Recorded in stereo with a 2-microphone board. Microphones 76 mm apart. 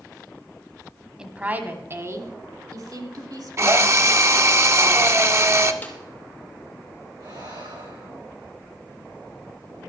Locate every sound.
1.2 s a woman speaking: 10° right (ahead or behind), 1.0 m; by 4.5 s 65° right (ahead or behind), 2.5 m
3.6 s a drill: 40° right (ahead or behind), 0.6 m
5.8 s a snare drum: 20° left (ahead or behind), 1.6 m
7.2 s breathing: 75° right (ahead or behind), 7 m